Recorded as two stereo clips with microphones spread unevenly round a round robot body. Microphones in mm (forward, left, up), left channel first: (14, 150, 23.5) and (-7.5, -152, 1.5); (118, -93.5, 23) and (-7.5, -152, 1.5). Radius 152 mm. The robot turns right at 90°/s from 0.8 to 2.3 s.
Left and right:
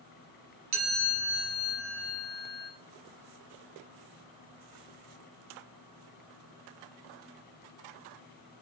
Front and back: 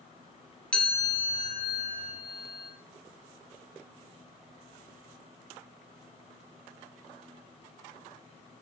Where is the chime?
55° right, 2.5 m; by 2.7 s 80° left, 2.5 m.